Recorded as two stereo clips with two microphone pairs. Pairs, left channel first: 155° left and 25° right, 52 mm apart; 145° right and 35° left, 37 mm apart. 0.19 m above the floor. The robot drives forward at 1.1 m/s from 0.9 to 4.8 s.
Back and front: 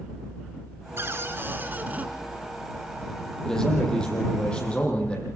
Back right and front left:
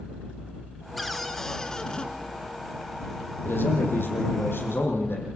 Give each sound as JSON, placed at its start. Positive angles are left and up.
{"t": 1.0, "sound": "a cupboard door", "azimuth_deg": -55, "distance_m": 3.0}
{"t": 3.5, "sound": "a man speaking", "azimuth_deg": -125, "distance_m": 7.5}